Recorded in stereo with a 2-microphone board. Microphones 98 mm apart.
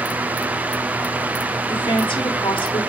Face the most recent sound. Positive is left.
turn(degrees=60)  # may be behind; listen again after turning